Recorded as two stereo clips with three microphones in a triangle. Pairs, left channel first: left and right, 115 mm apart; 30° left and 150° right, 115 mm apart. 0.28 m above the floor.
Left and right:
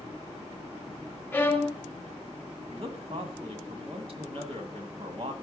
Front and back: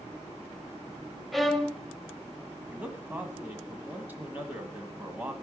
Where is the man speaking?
80° right, 1.6 m.